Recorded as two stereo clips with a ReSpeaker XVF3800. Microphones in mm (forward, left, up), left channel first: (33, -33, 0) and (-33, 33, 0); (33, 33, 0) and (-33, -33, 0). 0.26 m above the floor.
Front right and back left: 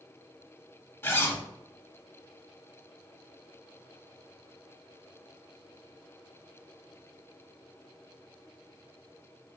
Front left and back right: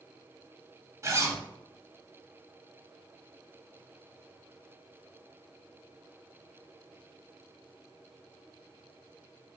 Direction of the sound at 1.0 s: 100° right.